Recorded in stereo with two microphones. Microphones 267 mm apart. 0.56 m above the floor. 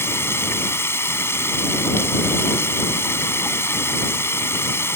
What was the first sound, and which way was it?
Running water, 10° left (ahead or behind).